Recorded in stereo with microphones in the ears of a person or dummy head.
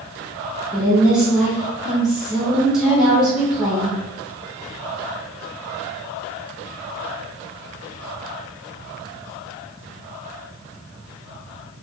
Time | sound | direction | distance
0.7 | a woman speaking | centre (ahead or behind) | 0.7 m